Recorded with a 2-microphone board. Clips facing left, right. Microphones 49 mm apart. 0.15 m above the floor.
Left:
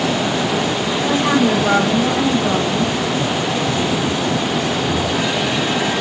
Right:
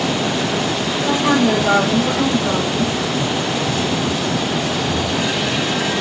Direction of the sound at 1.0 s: 25° left (ahead or behind).